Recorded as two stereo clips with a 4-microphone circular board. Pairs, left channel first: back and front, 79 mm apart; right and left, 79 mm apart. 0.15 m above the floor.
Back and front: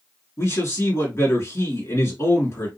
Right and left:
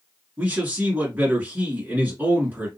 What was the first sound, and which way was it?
A man speaking, 150° left.